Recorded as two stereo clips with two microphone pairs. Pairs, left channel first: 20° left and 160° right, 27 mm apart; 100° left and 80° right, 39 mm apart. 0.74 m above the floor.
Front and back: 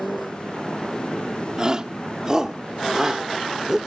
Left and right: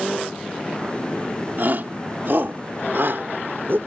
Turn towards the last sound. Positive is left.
turn(degrees=-90)